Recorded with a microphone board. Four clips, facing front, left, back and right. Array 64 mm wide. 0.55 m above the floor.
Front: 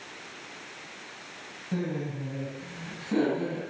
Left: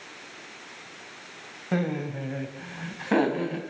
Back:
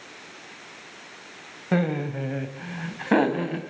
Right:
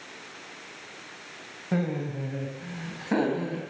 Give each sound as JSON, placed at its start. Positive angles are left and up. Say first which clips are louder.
{"t": 1.7, "sound": "laughter", "louder": "left 1 dB, back 7 dB", "azimuth_deg": 170, "distance_m": 2.5}